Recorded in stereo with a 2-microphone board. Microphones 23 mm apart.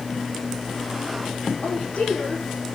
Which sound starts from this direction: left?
A woman speaking, at 1.6 s.